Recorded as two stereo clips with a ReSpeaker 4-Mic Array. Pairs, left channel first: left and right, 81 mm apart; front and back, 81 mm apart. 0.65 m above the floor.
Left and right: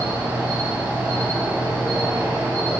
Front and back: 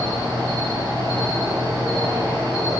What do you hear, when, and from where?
0.0 s an insect: 160° right, 0.9 m